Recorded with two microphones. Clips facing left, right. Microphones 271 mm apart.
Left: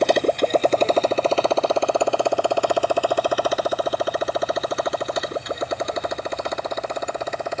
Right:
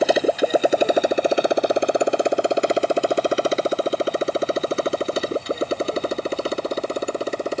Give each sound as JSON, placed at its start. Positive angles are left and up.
{"t": 0.0, "sound": "a motorcycle", "side_deg": -5}